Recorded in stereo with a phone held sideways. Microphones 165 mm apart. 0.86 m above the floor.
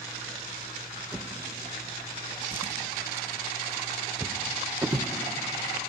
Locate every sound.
1.1 s a drawer: 15° right (ahead or behind), 0.6 m